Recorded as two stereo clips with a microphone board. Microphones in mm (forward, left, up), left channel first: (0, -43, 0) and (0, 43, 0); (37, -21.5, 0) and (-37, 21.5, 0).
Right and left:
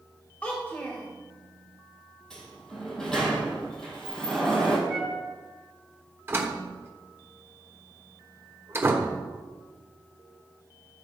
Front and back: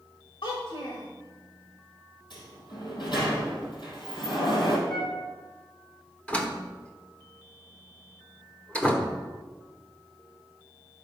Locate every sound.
0.4 s a child speaking: 20° right, 1.3 m
2.3 s a sliding door: 5° right, 2.5 m
4.9 s a flute: 5° left, 2.5 m
6.3 s a door slam: 40° left, 1.1 m